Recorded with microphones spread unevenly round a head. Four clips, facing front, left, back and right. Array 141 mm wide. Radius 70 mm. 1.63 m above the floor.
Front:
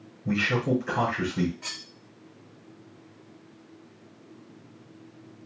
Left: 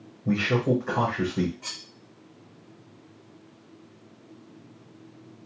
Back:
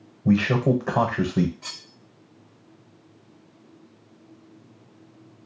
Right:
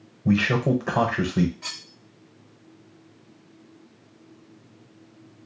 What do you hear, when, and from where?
0.2 s a man speaking: 145° right, 0.8 m
1.6 s cutlery clinking: 40° right, 0.9 m